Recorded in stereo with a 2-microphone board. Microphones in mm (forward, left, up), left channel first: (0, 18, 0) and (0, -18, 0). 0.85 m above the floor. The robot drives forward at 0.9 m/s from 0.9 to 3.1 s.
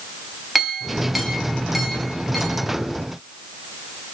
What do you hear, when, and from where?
0.6 s a clink: 5° right (ahead or behind), 1.2 m; by 2.7 s centre (ahead or behind), 2.5 m